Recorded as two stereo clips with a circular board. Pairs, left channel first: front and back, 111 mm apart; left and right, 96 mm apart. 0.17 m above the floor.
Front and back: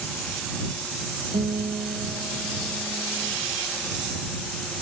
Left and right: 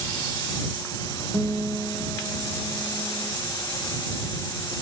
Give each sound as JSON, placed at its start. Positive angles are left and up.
{"t": 1.3, "sound": "a guitar", "azimuth_deg": -160}